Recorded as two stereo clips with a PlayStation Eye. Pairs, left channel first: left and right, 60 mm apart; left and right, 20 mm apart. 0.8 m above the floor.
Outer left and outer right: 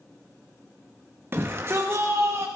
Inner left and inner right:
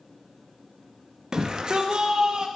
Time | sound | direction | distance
1.3 | a shout | 40° right (ahead or behind) | 1.1 m